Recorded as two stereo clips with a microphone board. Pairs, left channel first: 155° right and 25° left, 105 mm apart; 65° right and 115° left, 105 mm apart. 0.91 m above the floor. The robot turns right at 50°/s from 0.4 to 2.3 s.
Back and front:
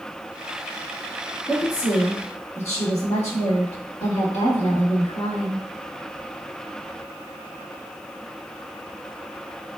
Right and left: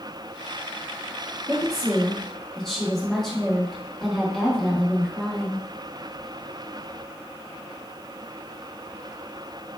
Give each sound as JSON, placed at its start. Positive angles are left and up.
{"t": 1.5, "sound": "a woman speaking", "azimuth_deg": 165, "distance_m": 1.4}